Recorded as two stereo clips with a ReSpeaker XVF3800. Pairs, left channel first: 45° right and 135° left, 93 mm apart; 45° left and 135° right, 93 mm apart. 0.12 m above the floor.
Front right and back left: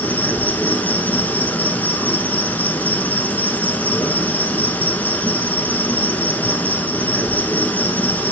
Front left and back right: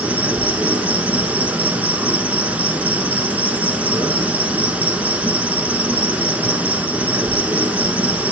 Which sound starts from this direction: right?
An insect, at 0.0 s.